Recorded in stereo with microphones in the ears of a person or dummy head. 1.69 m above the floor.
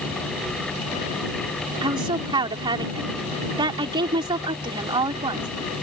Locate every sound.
1.8 s a woman speaking: 25° right (ahead or behind)